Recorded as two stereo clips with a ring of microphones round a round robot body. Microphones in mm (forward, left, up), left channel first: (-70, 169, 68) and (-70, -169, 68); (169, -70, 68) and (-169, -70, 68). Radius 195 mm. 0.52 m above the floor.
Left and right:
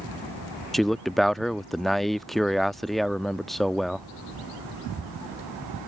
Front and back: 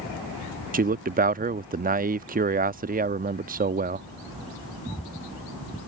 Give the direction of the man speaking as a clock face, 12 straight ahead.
6 o'clock.